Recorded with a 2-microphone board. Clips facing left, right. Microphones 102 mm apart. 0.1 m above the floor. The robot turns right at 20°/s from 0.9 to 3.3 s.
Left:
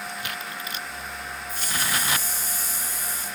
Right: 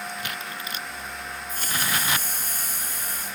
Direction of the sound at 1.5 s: 115° right.